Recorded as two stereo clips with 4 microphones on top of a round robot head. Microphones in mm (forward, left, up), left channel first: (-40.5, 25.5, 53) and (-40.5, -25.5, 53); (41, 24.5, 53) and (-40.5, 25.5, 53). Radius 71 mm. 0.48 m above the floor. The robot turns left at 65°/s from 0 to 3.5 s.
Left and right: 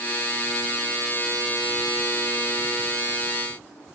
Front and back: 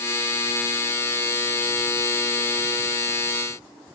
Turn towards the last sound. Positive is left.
No sound to turn to.